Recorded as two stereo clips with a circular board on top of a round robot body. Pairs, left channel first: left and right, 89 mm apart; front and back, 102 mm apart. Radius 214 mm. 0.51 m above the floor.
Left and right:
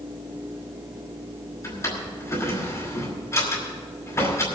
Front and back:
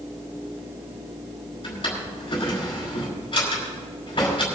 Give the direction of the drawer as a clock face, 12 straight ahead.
11 o'clock.